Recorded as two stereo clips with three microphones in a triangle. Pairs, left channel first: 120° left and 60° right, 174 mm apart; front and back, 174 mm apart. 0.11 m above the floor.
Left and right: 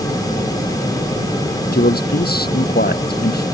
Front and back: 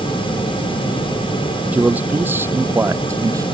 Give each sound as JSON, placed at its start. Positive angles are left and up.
{"t": 1.7, "sound": "a man speaking", "azimuth_deg": 100}